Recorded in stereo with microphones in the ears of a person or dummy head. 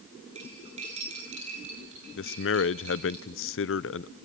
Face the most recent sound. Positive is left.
turn(degrees=55)  # may be behind; listen again after turning